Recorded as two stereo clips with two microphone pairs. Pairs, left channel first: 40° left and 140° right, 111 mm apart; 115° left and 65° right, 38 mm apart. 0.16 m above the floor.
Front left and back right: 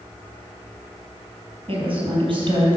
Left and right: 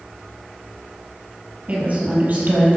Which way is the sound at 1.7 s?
110° right.